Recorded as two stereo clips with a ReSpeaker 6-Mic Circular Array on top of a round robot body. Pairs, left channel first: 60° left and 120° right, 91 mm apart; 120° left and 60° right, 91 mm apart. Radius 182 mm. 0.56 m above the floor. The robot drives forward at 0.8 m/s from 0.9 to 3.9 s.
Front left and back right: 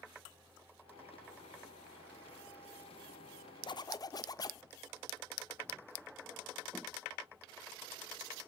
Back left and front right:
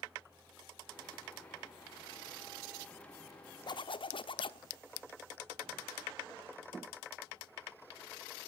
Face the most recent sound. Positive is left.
turn(degrees=105)